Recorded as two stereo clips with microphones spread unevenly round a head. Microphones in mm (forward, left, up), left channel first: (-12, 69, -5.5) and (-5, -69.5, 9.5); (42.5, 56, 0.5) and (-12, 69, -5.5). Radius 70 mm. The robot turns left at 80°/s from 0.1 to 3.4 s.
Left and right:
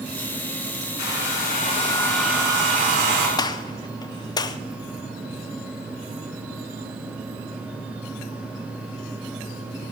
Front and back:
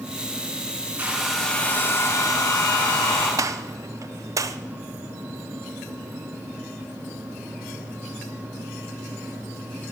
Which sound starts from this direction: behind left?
A gunshot, at 3.4 s.